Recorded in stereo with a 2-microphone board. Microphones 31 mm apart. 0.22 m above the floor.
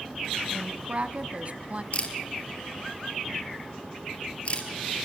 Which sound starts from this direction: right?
A woman speaking, at 0.5 s.